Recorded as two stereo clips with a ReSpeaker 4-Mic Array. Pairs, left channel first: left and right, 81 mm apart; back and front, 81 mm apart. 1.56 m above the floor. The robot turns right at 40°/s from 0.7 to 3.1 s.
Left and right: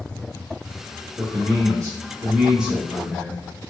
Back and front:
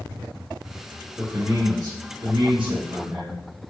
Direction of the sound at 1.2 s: 70° right.